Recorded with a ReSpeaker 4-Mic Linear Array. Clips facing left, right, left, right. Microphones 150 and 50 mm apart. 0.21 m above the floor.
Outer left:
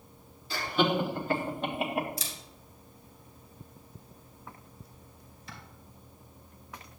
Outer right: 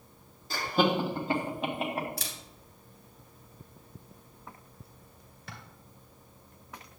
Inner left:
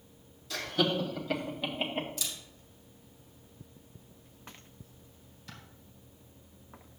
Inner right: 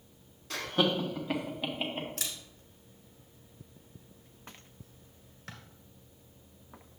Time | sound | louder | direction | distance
0.5 | laughter | outer right 1 dB, inner right 1 dB | 45° right (ahead or behind) | 1.6 m
2.2 | a camera shutter | even, even | 65° right (ahead or behind) | 1.7 m